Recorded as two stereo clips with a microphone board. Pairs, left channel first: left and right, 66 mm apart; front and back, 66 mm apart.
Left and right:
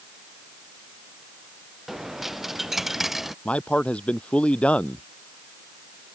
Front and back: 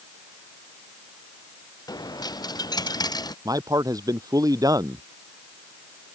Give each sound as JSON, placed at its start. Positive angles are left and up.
{"t": 1.9, "sound": "a dropped coin", "azimuth_deg": -5}
{"t": 3.5, "sound": "a man speaking", "azimuth_deg": 160}